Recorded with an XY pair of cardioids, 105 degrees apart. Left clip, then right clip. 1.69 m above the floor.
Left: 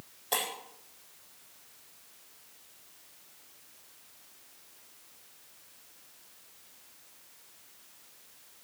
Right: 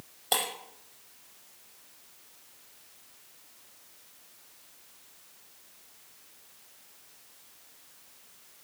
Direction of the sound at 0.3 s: 55° right.